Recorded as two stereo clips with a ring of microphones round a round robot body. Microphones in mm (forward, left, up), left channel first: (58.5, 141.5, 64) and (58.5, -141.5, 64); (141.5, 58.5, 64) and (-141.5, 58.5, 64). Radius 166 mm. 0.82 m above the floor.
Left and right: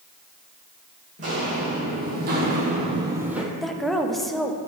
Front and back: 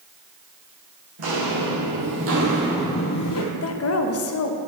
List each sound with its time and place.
1.2 s footsteps: 160° right, 2.5 m; by 3.4 s 5° right, 1.2 m
3.5 s a woman speaking: straight ahead, 0.9 m